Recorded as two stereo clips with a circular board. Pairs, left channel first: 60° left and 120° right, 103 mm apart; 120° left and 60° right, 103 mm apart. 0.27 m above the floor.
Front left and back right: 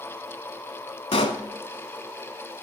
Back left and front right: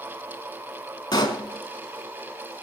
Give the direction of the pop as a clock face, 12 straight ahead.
9 o'clock.